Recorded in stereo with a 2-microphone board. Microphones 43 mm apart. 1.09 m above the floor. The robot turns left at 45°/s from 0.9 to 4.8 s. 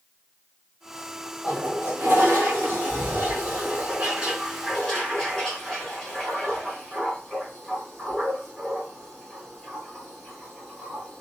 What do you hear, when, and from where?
1.4 s a toilet flushing: 45° right, 1.2 m; by 11.2 s 165° left, 1.2 m